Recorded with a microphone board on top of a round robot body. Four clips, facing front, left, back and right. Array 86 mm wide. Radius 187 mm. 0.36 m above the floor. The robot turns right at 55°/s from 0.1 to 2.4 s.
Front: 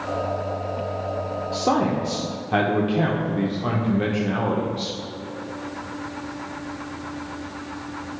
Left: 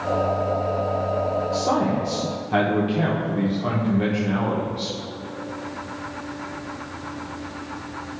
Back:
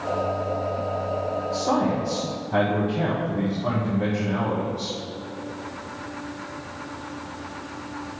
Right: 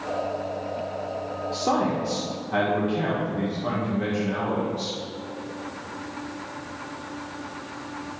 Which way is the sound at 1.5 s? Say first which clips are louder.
Right 1 dB, front 2 dB; 30° right.